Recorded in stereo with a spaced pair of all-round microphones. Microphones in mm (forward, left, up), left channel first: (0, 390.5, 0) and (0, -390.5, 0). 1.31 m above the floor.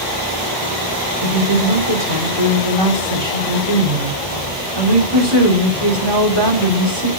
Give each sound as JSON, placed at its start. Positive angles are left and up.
{"t": 1.2, "sound": "a woman speaking", "side_deg": -30, "distance_m": 4.0}